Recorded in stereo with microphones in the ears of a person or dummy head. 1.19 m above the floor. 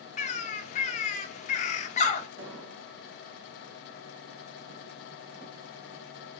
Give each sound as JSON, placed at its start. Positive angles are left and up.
{"t": 0.2, "sound": "a bird", "side_deg": 35, "distance_m": 0.6}
{"t": 2.4, "sound": "an explosion", "side_deg": -80, "distance_m": 1.1}